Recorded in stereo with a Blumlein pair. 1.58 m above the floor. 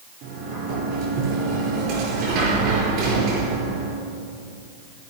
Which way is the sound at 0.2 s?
45° right.